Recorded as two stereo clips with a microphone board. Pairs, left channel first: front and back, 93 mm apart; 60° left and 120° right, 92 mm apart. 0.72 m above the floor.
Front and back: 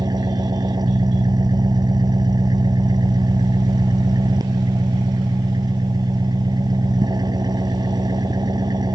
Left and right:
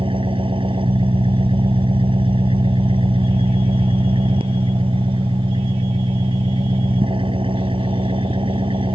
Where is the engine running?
140° right.